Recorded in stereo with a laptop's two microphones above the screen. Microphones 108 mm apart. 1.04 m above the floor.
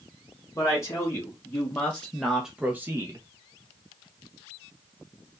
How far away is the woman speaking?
About 1.4 m.